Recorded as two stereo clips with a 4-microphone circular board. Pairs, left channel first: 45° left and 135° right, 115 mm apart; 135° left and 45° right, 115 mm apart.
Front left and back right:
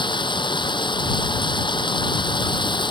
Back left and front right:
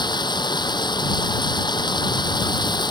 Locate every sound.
0.0 s running water: 90° left